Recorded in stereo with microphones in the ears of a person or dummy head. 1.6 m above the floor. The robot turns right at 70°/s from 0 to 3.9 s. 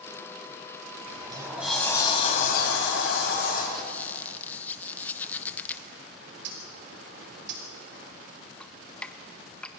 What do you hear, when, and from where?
1.1 s a sliding door: 45° right, 5 m; by 3.6 s 135° left, 5 m
3.7 s a squeak: centre (ahead or behind), 0.8 m; by 5.9 s 10° left (ahead or behind), 0.8 m
6.2 s a bird: 70° right (ahead or behind), 3.5 m
8.6 s dripping: centre (ahead or behind), 0.9 m